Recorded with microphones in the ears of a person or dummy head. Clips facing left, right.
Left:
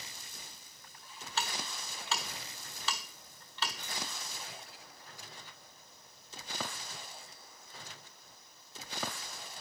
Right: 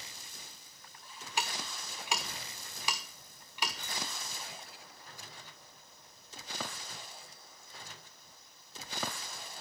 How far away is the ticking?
About 1.5 m.